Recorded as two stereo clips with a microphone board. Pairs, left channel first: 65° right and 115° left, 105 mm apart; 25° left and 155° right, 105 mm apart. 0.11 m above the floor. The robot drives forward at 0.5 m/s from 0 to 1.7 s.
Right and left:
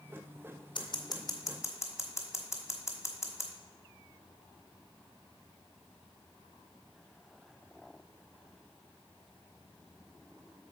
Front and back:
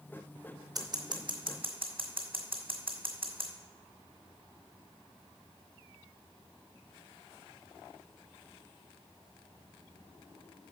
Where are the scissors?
105° right, 1.0 m; by 3.5 s 130° right, 1.2 m.